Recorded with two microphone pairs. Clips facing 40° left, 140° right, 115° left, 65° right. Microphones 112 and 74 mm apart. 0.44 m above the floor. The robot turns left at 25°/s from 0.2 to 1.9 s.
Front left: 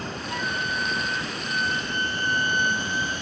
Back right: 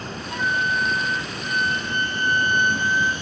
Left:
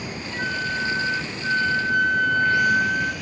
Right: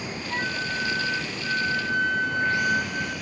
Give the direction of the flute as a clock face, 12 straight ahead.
3 o'clock.